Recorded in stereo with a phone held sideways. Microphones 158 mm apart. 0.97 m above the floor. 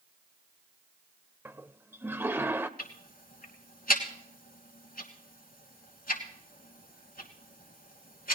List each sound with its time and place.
1.4 s a toilet flushing: 15° right (ahead or behind), 0.7 m
2.8 s ticking: 65° left (ahead or behind), 2.5 m